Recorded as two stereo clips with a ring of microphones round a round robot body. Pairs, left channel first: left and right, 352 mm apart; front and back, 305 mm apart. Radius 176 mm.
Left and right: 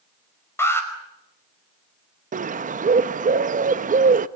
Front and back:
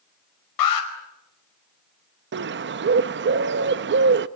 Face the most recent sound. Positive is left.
turn(degrees=-150)